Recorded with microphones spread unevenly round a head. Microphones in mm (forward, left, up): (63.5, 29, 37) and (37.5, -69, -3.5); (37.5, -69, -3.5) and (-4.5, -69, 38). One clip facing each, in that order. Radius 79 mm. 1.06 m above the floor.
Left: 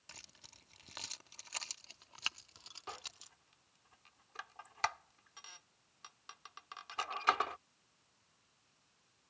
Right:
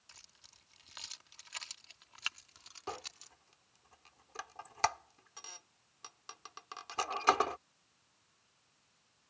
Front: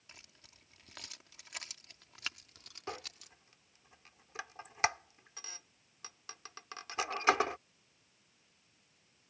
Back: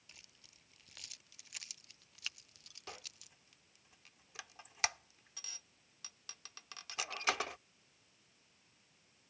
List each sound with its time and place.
0.1 s keys jangling: 60° left; by 3.3 s 5° left
2.9 s a squeak: 50° right